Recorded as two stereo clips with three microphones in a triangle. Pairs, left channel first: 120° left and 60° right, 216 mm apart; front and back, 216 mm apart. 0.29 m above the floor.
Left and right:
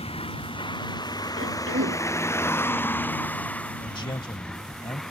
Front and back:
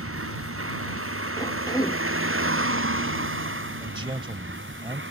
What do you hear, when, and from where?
0.0 s a vehicle: 175° right; by 5.1 s 150° right
1.4 s a cough: 75° right
3.8 s a man speaking: 150° left